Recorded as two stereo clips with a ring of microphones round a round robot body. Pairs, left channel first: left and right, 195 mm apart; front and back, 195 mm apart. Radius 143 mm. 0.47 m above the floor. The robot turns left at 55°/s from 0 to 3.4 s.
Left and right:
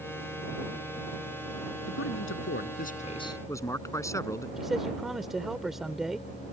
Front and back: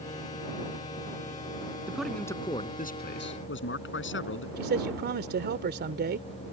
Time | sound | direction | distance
1.9 | a man speaking | 100° left | ?
4.6 | a man speaking | straight behind | ?